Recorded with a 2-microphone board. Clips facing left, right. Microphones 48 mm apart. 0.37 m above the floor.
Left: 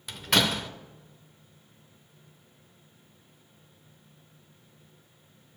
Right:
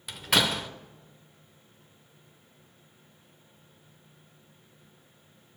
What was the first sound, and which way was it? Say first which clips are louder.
A door slam: even; 5° right (ahead or behind).